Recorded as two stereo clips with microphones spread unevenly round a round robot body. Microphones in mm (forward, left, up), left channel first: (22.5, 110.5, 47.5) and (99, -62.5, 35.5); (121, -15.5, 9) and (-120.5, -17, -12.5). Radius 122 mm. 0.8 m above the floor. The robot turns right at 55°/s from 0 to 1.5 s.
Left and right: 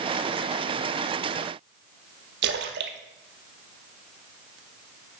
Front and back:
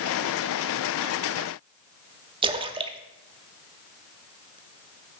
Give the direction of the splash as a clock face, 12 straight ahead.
4 o'clock.